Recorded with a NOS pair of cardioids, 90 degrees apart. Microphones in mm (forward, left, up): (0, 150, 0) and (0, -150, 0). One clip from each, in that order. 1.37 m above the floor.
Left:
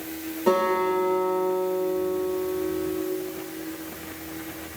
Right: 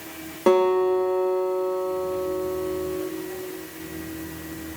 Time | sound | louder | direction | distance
0.5 | a guitar | right 3 dB | 60° right | 2.5 m